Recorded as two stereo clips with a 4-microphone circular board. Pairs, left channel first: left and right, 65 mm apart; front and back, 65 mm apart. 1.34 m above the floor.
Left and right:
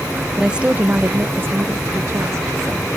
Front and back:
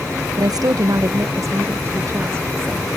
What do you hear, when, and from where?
0.4 s a woman speaking: 170° right; by 2.9 s 130° right